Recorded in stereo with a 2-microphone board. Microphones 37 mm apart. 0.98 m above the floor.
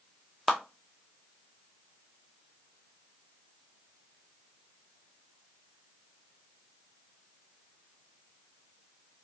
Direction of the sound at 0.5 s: 5° right (ahead or behind).